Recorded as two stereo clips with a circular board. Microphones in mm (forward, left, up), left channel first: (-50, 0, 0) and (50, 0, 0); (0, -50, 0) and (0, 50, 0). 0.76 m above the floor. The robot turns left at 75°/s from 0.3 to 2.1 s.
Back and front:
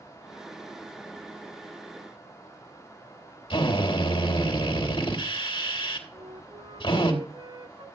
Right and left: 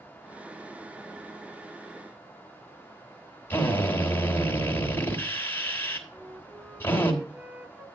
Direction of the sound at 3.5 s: 155° right.